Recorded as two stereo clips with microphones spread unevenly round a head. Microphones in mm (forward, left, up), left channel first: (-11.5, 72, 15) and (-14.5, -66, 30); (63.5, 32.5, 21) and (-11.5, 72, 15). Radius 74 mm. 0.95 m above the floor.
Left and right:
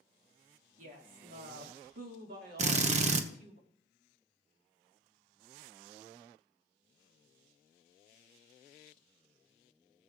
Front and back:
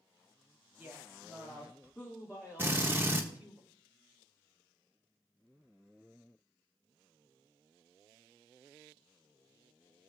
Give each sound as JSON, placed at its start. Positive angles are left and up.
{"t": 0.8, "sound": "a woman speaking", "azimuth_deg": -125, "distance_m": 2.0}
{"t": 2.6, "sound": "a drill", "azimuth_deg": -130, "distance_m": 0.9}